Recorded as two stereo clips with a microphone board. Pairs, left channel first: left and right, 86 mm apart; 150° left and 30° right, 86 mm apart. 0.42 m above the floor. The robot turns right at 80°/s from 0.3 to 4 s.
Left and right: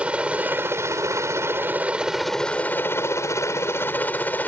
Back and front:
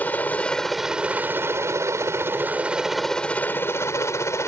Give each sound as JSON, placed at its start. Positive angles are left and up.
{"t": 0.0, "sound": "a helicopter", "azimuth_deg": -155}